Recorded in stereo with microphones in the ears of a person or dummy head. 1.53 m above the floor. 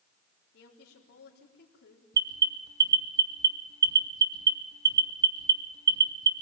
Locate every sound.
0.5 s a woman speaking: 65° left (ahead or behind), 4 m
2.1 s an alarm: 20° right (ahead or behind), 2.5 m